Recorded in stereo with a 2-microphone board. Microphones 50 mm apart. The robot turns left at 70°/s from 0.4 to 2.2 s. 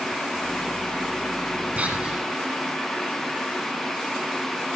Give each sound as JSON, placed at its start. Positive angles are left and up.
{"t": 1.8, "sound": "whispering", "azimuth_deg": -125, "distance_m": 1.6}